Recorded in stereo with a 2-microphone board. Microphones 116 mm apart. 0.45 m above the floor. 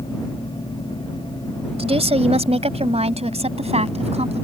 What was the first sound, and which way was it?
A woman speaking, 60° right (ahead or behind).